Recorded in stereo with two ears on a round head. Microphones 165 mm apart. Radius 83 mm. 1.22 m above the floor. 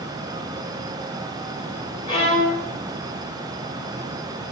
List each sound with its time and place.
2.1 s a violin: 25° left (ahead or behind), 1.1 m